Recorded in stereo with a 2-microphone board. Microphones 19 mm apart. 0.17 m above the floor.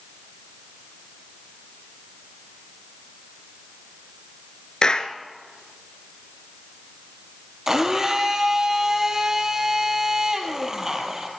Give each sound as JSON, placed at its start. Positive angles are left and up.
{"t": 4.8, "sound": "a clap", "side_deg": 40, "distance_m": 1.7}
{"t": 7.7, "sound": "a blender", "side_deg": -25, "distance_m": 3.5}